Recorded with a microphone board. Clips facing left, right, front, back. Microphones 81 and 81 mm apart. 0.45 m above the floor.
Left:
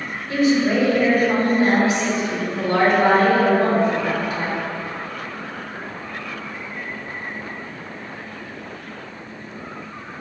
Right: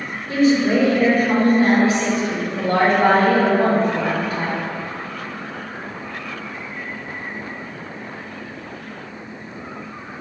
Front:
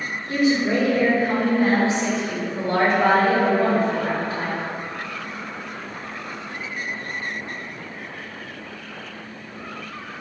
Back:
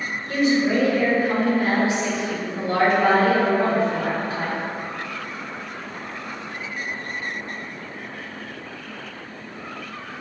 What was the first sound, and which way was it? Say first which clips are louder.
A woman speaking: right 2 dB, even; 65° right.